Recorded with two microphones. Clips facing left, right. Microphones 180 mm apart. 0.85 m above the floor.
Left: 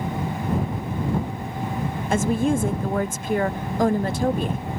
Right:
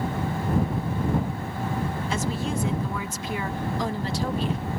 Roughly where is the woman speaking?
Left.